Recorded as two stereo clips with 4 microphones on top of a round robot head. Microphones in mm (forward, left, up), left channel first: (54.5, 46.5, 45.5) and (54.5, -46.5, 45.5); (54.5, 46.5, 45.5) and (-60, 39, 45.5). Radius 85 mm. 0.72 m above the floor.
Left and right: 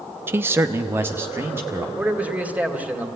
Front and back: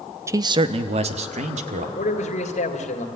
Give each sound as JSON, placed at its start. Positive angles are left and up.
{"t": 0.3, "sound": "a man speaking", "azimuth_deg": -135, "distance_m": 0.7}
{"t": 2.0, "sound": "a man speaking", "azimuth_deg": -15, "distance_m": 2.5}